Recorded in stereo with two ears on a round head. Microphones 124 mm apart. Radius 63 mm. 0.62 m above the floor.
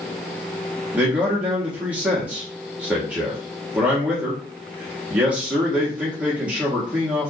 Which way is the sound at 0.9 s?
10° right (ahead or behind).